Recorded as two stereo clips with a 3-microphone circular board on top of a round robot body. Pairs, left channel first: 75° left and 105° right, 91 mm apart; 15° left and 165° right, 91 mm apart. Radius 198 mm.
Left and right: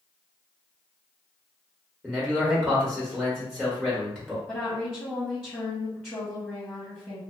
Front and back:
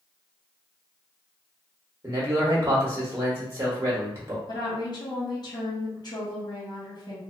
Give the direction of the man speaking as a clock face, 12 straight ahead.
7 o'clock.